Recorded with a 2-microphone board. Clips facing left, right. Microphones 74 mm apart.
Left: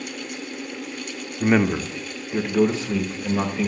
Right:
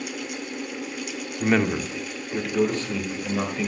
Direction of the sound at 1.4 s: 10° left (ahead or behind).